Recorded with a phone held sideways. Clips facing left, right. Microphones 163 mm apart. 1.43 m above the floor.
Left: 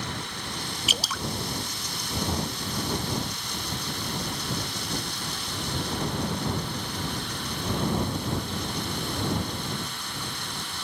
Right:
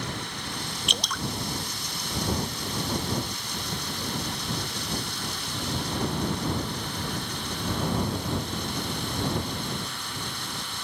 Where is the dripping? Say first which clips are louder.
Right 1 dB; 5° left (ahead or behind).